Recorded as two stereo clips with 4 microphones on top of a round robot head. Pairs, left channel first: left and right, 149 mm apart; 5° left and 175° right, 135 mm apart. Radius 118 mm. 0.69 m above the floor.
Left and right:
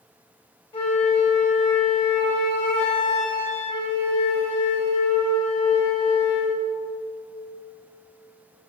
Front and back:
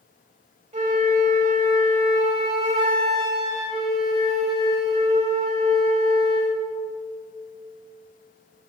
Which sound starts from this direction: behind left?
A flute, at 0.7 s.